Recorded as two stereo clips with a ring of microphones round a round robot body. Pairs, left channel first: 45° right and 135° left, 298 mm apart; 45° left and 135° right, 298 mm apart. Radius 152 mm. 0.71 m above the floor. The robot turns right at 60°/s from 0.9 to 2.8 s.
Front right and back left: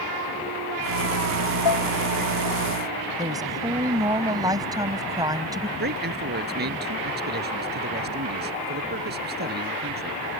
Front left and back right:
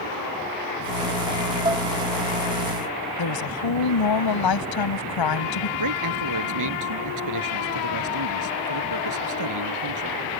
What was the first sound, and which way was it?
Dishes clattering, 60° right.